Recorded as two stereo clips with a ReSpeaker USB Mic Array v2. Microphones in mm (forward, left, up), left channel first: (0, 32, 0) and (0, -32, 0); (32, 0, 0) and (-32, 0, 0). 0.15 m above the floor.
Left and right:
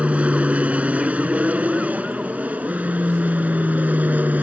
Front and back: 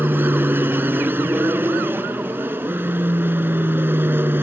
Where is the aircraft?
145° right; by 4.4 s 140° right.